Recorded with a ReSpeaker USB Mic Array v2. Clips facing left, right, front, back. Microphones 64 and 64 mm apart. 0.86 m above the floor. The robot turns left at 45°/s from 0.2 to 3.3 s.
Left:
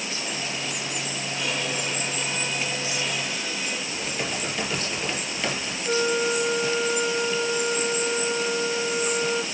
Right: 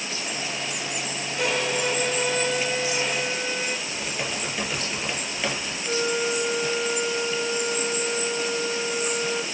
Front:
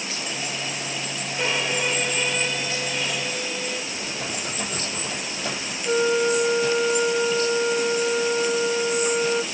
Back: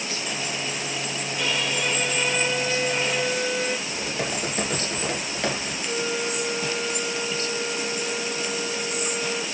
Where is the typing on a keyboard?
170° right, 4.5 m.